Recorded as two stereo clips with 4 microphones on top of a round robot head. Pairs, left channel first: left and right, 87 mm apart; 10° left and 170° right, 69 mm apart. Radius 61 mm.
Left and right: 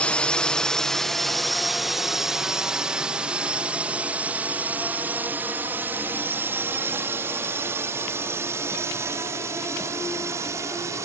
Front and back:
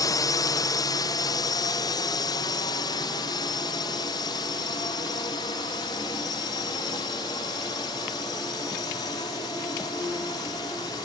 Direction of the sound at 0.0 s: 15° left.